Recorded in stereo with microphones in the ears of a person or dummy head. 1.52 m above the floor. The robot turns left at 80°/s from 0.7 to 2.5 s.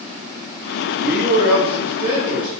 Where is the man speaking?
55° right, 0.6 m; by 2.5 s 175° right, 0.6 m.